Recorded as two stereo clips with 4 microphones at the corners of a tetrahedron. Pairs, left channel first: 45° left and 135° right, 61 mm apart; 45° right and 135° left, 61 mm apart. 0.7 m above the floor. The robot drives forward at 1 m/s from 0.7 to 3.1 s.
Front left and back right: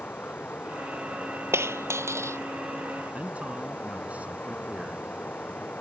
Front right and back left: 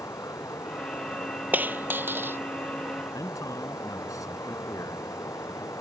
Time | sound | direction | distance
0.0 | running water | 15° right | ?
1.5 | a dropped coin | 170° right | ?
3.1 | a man speaking | 70° right | ?